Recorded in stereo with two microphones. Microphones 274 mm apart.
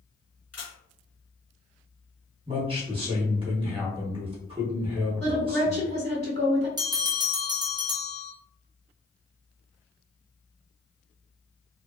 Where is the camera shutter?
65° left (ahead or behind), 1.3 m.